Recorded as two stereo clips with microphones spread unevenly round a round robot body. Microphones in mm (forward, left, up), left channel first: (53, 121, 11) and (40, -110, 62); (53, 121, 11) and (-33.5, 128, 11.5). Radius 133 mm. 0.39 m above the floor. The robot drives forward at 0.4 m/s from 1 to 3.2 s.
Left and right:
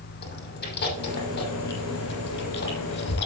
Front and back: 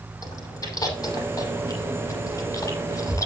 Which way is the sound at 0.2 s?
40° left.